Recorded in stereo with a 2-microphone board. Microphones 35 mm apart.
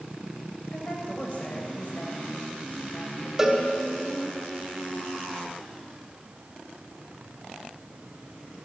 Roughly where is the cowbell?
Centre.